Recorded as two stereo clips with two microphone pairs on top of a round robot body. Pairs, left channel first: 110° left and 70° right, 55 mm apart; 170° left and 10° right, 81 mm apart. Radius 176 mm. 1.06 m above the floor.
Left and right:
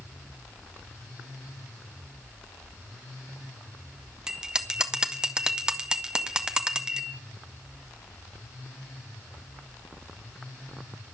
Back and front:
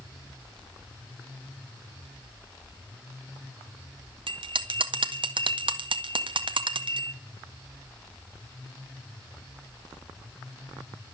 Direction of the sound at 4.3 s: 10° left.